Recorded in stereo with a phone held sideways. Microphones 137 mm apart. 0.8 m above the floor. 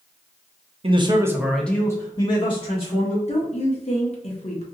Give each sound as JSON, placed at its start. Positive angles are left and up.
{"t": 0.8, "sound": "a man speaking", "side_deg": -45, "distance_m": 0.6}
{"t": 3.3, "sound": "a woman speaking", "side_deg": 50, "distance_m": 0.7}